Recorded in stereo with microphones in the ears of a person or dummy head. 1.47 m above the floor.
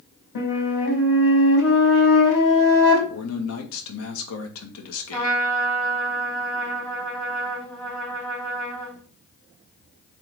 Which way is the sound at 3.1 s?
85° left.